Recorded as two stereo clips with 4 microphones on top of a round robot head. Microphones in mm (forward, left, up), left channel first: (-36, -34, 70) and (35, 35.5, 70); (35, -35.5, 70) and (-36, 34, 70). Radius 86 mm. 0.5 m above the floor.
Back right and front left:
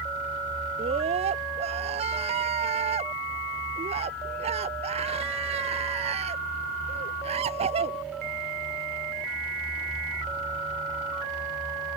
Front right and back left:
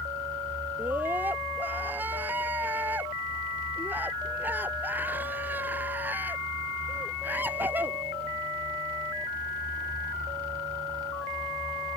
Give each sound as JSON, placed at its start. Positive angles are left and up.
{"t": 0.8, "sound": "a scream", "azimuth_deg": 65}